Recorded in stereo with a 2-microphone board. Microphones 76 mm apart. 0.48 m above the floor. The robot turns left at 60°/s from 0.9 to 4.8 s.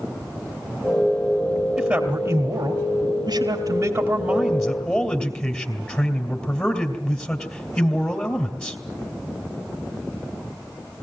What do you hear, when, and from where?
1.8 s a man speaking: 20° right, 2.5 m; by 8.8 s 160° left, 2.5 m